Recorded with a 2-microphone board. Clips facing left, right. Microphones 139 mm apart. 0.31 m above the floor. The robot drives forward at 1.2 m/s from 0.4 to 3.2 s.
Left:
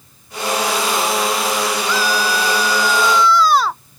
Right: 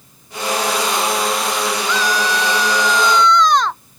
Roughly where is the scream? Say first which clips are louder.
Even; centre.